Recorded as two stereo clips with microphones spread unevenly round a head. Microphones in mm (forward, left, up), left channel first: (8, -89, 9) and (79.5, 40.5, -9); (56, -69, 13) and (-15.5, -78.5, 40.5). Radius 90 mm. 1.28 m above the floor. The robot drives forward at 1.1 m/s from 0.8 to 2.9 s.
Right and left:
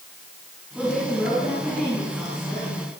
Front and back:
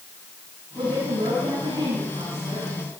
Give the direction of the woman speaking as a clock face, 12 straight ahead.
7 o'clock.